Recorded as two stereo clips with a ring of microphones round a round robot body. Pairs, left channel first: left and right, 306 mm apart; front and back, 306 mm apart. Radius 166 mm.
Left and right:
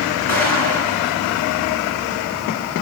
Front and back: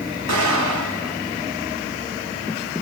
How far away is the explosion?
About 2.5 m.